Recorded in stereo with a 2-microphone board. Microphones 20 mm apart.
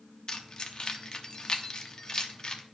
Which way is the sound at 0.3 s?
40° left (ahead or behind).